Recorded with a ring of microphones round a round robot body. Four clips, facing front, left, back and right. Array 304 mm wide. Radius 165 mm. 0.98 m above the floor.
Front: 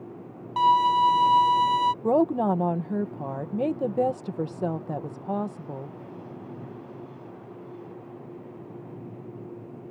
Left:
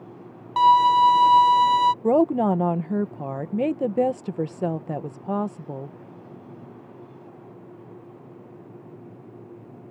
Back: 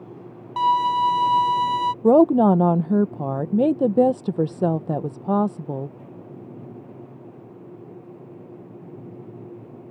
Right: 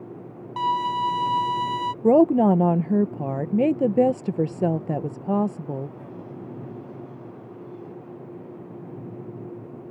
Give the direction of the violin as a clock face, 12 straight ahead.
9 o'clock.